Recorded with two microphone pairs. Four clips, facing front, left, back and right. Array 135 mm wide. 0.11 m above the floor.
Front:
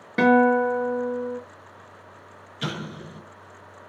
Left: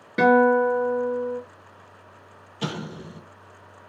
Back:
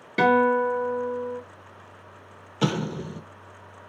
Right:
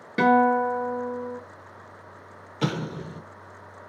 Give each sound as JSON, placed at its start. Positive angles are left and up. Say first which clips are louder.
{"t": 0.2, "sound": "a guitar", "louder": "left 2 dB, front 2 dB", "azimuth_deg": 0, "distance_m": 1.6}
{"t": 2.6, "sound": "an explosion", "louder": "right 3 dB, back 7 dB", "azimuth_deg": -150, "distance_m": 0.6}